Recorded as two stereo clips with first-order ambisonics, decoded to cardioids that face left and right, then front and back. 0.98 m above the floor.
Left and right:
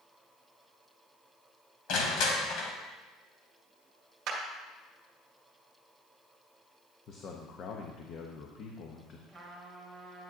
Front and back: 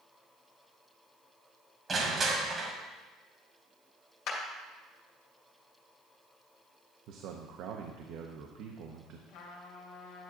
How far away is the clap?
About 1.9 m.